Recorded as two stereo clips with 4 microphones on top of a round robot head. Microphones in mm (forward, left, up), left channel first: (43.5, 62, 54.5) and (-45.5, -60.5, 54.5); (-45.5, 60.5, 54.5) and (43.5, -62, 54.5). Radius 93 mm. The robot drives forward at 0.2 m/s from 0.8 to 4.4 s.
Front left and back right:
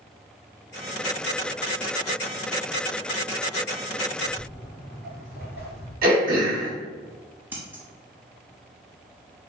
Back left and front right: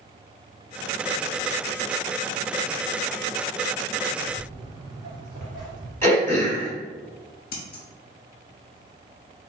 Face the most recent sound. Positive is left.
turn(degrees=155)